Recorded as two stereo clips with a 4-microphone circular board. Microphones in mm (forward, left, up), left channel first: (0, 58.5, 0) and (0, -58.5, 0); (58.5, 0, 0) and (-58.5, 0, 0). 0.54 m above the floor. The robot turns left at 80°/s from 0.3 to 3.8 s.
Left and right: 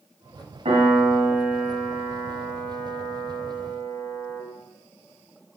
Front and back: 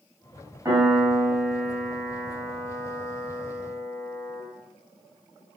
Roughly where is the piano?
Behind right.